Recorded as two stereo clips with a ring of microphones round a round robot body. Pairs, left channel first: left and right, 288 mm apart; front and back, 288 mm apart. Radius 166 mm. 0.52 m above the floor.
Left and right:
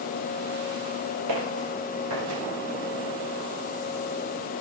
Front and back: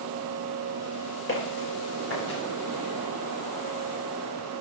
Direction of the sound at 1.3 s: 50° right.